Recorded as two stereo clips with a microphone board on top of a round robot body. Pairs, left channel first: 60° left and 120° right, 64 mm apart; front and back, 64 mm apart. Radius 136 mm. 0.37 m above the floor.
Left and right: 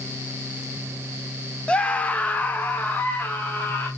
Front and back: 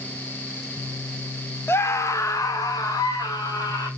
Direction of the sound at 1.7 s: Straight ahead.